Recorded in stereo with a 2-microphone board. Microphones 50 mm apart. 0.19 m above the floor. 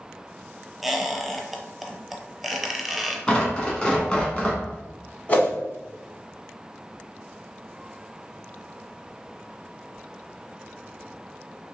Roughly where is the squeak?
Centre.